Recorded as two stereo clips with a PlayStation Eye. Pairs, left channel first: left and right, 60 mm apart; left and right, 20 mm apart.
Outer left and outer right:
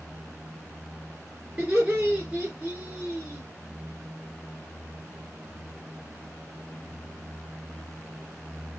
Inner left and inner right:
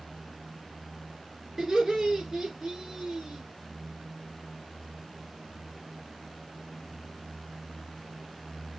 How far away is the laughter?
About 1.7 m.